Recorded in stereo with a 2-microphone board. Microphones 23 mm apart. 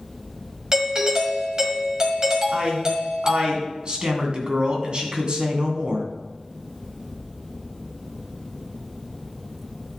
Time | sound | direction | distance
0.7 | a doorbell | 25° right (ahead or behind) | 1.5 m
2.5 | a man speaking | 40° right (ahead or behind) | 2.5 m